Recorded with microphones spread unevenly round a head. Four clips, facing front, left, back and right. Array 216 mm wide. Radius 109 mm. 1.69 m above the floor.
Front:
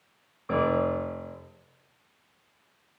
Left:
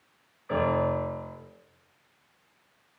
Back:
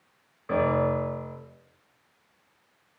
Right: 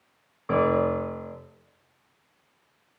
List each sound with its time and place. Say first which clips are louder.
0.5 s a piano: right 3 dB, back 1 dB; 95° right, 1.7 m